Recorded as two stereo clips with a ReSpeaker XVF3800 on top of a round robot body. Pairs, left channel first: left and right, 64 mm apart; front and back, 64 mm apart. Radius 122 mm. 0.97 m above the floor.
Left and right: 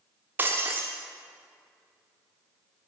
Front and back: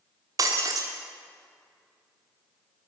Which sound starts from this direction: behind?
Breaking glass, at 0.4 s.